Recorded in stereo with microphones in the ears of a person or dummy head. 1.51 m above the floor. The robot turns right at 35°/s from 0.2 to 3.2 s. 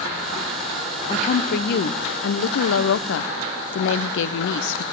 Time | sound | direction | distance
1.1 | a woman speaking | 40° left | 0.7 m